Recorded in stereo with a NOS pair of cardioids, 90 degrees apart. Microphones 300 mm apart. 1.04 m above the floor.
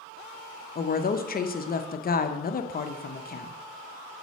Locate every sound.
0.8 s a woman speaking: 30° left, 0.6 m